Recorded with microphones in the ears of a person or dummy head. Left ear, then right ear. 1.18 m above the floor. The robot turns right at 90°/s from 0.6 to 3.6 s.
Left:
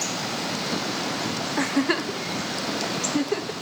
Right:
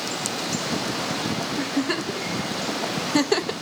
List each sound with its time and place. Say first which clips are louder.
1.6 s a giggle: left 5 dB; 40° left (ahead or behind), 0.7 m; by 3.5 s 45° right (ahead or behind), 0.7 m